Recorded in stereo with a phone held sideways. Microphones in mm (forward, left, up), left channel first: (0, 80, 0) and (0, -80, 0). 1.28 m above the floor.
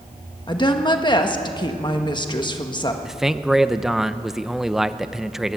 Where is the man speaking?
5° right (ahead or behind), 0.7 m.